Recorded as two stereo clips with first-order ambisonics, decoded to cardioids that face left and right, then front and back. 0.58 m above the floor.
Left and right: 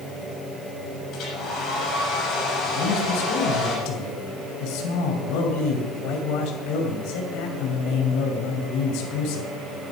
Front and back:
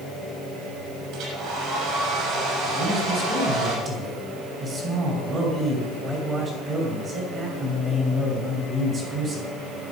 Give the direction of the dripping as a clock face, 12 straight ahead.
No dripping in this recording.